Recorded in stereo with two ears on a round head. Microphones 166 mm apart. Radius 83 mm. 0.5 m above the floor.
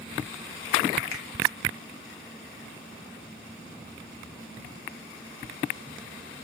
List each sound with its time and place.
1.1 s a finger snap: 55° left (ahead or behind), 0.9 m